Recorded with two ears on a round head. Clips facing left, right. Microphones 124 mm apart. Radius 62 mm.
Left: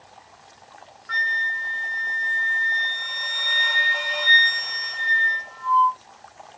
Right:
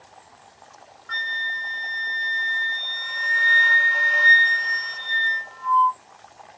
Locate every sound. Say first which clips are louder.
1.1 s a flute: left 4 dB; centre (ahead or behind), 0.8 m